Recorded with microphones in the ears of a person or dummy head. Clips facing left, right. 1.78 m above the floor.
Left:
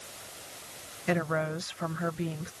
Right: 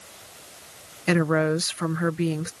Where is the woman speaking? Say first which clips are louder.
Right 8 dB; 70° right (ahead or behind).